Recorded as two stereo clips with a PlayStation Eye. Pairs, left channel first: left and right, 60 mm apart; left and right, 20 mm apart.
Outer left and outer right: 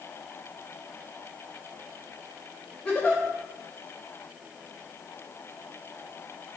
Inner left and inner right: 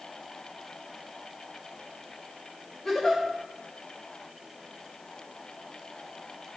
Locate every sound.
2.9 s a giggle: 20° left (ahead or behind), 3.5 m